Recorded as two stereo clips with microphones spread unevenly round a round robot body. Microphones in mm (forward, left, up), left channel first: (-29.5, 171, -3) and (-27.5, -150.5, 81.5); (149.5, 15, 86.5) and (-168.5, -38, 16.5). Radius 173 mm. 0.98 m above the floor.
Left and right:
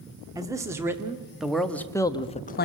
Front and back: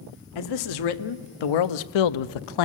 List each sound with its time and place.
0.3 s a man speaking: 10° right, 2 m; by 2.6 s 35° left, 0.7 m